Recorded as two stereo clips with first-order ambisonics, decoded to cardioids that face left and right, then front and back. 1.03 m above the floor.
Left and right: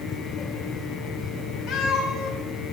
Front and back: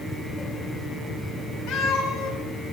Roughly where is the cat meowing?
Ahead.